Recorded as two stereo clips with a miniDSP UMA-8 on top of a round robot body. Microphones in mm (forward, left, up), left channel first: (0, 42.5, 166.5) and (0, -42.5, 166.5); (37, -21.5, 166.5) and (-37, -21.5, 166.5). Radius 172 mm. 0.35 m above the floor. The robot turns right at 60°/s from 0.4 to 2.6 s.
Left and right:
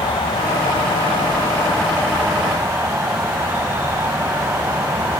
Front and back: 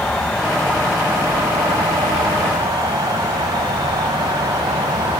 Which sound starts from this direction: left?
An insect, at 0.0 s.